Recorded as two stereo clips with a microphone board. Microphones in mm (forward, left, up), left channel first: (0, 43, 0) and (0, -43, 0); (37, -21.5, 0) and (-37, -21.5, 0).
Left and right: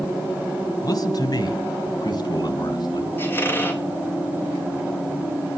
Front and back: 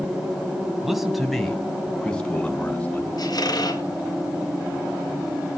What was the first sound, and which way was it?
A man speaking, 100° left.